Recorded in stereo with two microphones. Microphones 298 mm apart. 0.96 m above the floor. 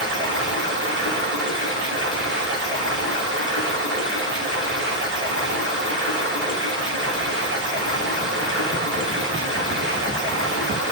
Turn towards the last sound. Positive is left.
turn(degrees=-40)  # may be behind; listen again after turning